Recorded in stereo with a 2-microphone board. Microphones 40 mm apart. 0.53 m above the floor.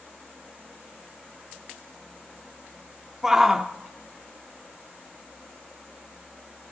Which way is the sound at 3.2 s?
10° right (ahead or behind).